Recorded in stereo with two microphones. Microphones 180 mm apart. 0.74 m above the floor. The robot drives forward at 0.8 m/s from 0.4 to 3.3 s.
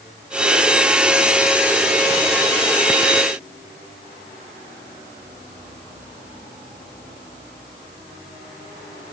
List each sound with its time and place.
Only background noise.